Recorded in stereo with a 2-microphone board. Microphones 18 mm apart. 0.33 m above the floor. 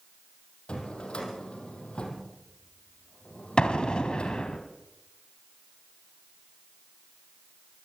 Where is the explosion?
60° left (ahead or behind), 2.5 m.